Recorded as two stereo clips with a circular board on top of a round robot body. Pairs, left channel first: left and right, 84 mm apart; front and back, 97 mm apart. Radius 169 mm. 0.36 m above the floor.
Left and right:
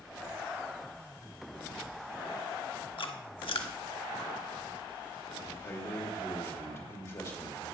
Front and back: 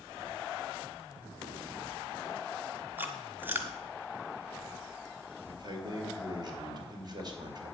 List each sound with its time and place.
3.0 s chewing: 110° left, 1.1 m
5.5 s a man speaking: 145° left, 3 m